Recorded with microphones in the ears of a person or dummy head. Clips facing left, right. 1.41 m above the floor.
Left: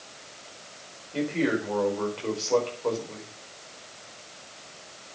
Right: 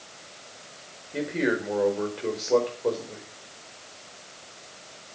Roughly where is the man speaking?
Centre.